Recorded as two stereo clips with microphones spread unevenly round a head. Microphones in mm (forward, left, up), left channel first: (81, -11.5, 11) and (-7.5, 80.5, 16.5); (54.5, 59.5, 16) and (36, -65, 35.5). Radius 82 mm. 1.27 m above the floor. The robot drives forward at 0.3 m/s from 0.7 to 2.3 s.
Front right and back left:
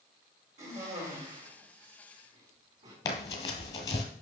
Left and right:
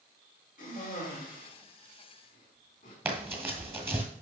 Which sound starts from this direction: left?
A cough, at 0.6 s.